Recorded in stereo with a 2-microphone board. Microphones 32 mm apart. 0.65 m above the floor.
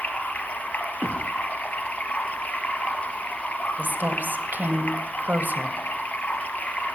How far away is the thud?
About 8.5 m.